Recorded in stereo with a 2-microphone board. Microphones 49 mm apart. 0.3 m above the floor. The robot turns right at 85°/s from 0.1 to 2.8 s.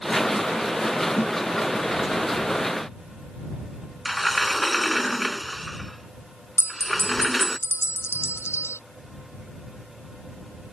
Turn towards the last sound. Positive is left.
turn(degrees=55)  # may be behind; listen again after turning